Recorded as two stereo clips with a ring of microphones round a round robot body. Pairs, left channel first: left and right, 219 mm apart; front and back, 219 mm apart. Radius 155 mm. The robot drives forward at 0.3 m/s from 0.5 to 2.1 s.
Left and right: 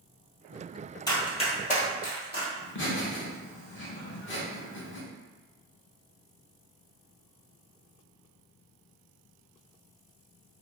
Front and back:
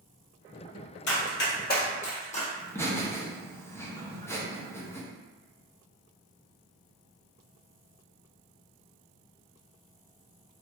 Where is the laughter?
80° left, 1.0 m.